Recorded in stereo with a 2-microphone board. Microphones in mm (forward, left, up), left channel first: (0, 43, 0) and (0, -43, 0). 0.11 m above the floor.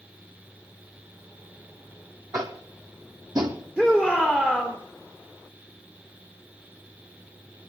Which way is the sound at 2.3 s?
50° right (ahead or behind).